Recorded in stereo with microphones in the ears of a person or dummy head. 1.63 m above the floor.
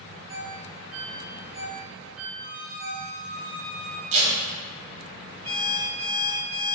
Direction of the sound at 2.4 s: 50° right (ahead or behind).